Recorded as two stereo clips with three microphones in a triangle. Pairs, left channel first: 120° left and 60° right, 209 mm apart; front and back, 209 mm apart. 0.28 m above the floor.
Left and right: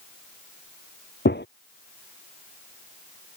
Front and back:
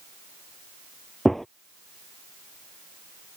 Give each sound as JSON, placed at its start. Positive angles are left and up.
{"t": 1.2, "sound": "a gunshot", "azimuth_deg": 90}